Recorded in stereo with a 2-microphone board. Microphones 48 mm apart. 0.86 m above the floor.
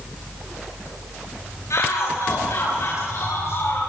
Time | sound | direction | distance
1.7 | a shout | 75° left (ahead or behind) | 5.5 m